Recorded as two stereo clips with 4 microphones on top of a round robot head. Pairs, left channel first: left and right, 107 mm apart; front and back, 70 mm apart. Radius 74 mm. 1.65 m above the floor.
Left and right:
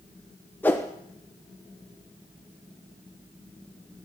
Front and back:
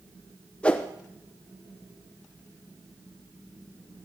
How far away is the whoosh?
About 0.6 m.